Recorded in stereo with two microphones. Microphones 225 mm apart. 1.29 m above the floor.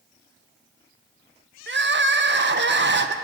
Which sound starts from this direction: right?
Crying, at 1.7 s.